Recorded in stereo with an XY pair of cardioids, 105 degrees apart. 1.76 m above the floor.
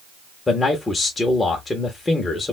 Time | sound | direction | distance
0.5 | a man speaking | 30° left | 0.8 m